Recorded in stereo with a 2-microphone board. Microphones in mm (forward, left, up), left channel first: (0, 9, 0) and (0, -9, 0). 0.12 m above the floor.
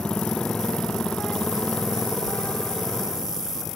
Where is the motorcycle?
80° left; by 3.8 s 65° left (ahead or behind).